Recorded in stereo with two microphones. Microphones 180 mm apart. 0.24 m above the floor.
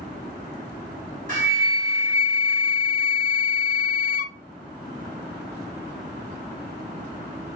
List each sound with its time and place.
1.3 s a flute: 45° right (ahead or behind), 1.6 m